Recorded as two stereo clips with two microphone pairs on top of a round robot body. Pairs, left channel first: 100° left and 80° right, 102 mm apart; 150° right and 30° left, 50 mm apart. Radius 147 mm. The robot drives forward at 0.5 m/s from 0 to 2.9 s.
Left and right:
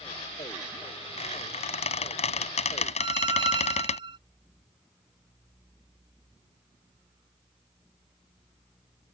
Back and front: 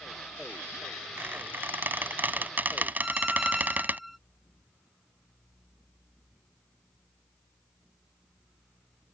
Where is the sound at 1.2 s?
75° left; by 4.0 s 85° left.